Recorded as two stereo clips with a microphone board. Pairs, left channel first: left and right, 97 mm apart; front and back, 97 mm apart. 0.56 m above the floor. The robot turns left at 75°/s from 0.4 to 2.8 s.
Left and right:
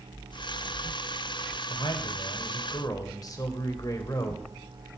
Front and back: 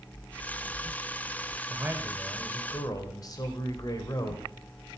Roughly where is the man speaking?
Behind left.